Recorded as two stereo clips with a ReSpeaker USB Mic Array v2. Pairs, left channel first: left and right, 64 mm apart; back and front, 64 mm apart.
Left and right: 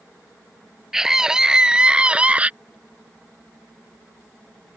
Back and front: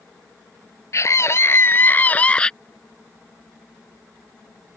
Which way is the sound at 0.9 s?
170° right.